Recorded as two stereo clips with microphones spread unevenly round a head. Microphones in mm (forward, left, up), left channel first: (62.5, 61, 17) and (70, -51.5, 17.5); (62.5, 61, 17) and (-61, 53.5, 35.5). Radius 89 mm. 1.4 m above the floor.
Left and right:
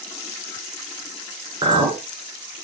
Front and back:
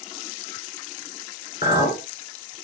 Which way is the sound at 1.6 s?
40° right.